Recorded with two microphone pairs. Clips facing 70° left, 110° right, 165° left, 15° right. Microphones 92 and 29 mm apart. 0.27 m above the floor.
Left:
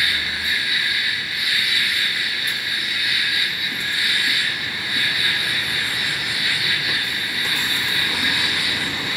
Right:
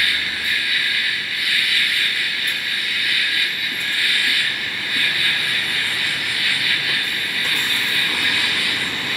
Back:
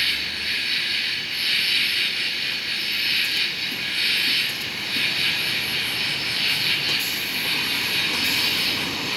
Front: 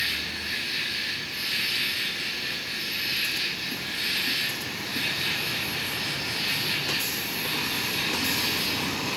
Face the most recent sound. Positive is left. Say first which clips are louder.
# right 1 dB, back 5 dB
turn(degrees=135)